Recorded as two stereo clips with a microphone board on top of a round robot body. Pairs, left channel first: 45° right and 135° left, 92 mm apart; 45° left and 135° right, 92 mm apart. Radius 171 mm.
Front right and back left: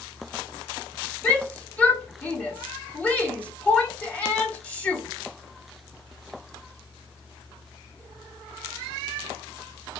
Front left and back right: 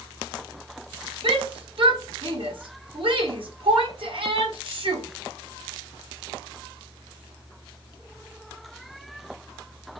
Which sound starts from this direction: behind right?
A shout, at 1.2 s.